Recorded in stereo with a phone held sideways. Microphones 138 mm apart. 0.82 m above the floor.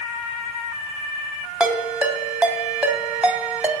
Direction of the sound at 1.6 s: 10° right (ahead or behind).